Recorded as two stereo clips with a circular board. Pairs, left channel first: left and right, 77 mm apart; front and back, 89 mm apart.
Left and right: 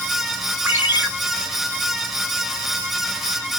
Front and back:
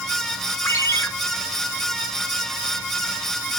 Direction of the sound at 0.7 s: 40° right.